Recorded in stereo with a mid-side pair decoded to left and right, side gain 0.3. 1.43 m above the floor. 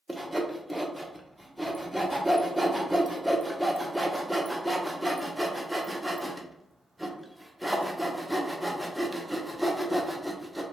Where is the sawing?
5° right, 0.6 m.